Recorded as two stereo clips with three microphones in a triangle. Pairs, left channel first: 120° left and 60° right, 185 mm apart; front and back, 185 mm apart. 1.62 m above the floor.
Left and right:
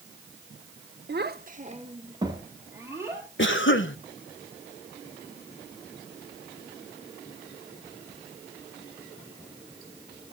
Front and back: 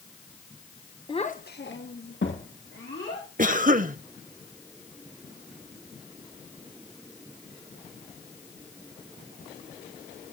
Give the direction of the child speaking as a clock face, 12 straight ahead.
2 o'clock.